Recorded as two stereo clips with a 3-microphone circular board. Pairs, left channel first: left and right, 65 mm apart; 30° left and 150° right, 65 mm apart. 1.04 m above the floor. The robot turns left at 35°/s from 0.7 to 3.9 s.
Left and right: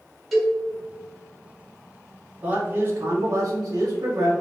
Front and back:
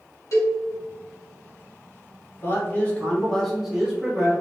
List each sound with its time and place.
0.3 s a cowbell: 5° left, 1.8 m
2.4 s a man speaking: 20° right, 1.2 m; by 4.3 s 70° right, 1.2 m